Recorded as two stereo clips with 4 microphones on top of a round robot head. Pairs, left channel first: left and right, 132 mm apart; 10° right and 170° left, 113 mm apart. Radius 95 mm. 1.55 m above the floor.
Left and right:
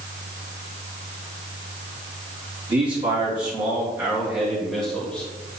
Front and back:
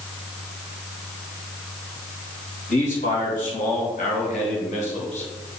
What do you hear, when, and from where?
2.7 s a man speaking: 30° right, 2.5 m; by 5.3 s 5° left, 1.8 m